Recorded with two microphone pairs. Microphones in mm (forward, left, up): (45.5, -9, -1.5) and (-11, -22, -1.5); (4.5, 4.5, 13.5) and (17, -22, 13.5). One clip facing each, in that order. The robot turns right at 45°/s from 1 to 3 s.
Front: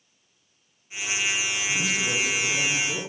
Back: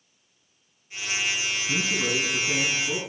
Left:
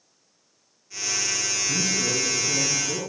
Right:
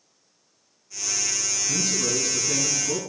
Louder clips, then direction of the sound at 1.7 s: Back 1 dB, even; 160° right.